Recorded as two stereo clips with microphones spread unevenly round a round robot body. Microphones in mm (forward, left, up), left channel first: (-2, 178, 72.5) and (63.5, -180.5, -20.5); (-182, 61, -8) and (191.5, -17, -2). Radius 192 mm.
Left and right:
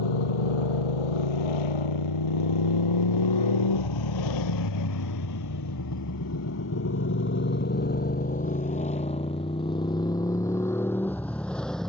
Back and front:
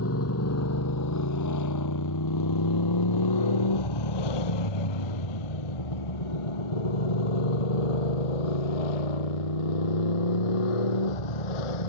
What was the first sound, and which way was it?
A motorcycle, 110° left.